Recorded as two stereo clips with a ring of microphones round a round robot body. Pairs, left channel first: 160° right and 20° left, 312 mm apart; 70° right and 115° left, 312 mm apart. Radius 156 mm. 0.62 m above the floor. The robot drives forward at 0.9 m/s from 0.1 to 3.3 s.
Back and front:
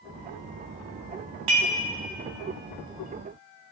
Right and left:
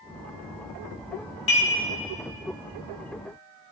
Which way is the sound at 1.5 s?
Straight ahead.